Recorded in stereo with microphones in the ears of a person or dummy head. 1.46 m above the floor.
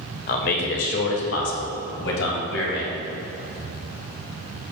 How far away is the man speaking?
About 1.2 m.